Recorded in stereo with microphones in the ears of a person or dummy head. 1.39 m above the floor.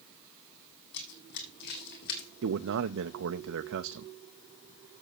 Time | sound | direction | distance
0.9 | running footsteps | 60° left (ahead or behind) | 3 m
2.4 | a man speaking | 70° right (ahead or behind) | 0.6 m